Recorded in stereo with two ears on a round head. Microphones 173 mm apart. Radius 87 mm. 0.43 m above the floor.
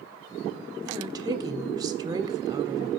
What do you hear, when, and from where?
0.8 s a woman speaking: 20° right (ahead or behind), 1.3 m